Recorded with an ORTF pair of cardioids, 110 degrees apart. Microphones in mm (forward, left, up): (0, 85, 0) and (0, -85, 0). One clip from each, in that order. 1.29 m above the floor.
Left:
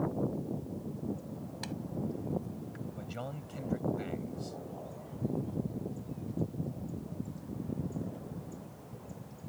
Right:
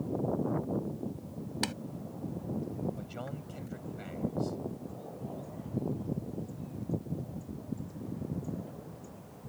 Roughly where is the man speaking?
Ahead.